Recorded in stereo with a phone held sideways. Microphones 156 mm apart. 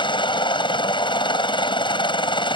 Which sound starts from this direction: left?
A helicopter, at 0.0 s.